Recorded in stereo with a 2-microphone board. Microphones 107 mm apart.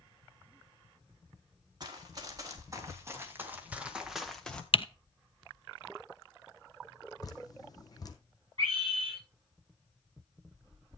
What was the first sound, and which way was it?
Running footsteps, 40° right (ahead or behind).